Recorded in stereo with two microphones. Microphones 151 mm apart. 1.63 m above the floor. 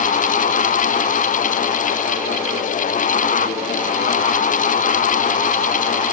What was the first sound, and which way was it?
Only background noise.